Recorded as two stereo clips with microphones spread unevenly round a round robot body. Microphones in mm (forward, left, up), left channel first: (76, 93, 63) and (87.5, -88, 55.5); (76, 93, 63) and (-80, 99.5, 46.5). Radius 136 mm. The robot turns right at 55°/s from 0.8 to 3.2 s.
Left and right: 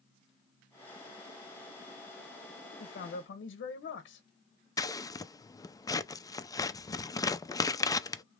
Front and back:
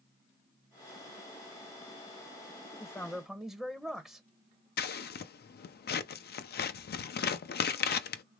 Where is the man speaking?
70° left, 0.7 m; by 4.3 s 90° left, 0.7 m.